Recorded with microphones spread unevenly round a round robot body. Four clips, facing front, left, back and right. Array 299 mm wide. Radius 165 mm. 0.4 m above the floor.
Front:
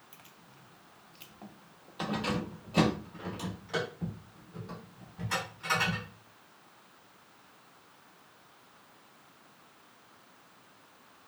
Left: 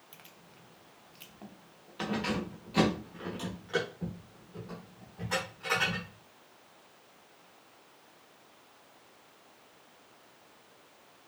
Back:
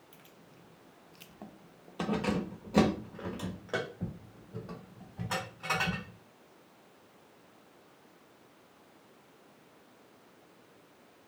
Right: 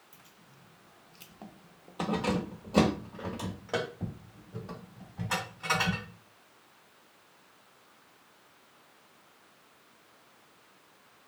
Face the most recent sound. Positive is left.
turn(degrees=-125)